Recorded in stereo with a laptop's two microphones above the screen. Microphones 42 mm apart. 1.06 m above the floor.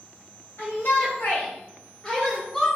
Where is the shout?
70° left (ahead or behind), 1.3 m; by 2.7 s 5° left (ahead or behind), 1.1 m.